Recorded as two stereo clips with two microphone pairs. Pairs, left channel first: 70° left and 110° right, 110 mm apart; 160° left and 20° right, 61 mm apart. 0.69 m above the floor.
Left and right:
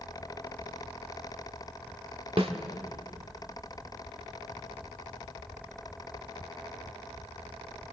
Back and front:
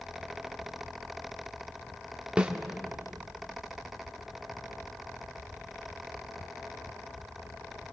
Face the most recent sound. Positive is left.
turn(degrees=-90)